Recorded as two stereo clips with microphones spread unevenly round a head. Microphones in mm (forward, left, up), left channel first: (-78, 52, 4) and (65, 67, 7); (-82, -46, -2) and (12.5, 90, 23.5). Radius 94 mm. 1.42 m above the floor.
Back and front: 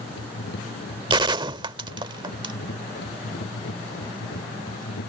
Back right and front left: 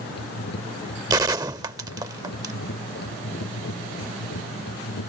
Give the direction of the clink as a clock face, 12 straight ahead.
I don't hear a clink.